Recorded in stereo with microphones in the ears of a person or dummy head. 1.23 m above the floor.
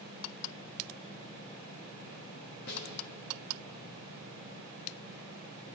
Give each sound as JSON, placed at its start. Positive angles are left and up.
{"t": 2.7, "sound": "a snare drum", "side_deg": 55, "distance_m": 1.6}